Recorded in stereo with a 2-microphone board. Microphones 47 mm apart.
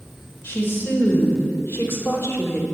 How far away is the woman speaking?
About 3.5 m.